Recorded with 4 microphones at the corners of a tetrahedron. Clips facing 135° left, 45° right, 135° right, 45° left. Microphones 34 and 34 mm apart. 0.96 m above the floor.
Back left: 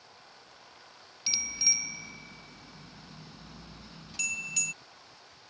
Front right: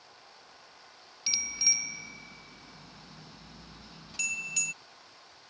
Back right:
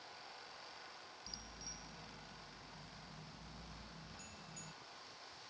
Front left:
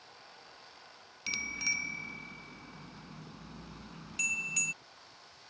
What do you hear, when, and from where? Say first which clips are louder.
1.3 s a bicycle bell: even, front left 25 dB; 45° left